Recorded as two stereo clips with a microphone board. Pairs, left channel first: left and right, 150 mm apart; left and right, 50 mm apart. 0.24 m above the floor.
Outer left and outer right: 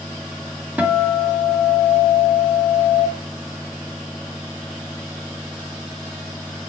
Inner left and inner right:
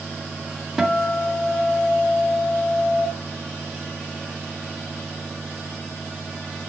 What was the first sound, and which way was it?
A guitar, 10° right (ahead or behind).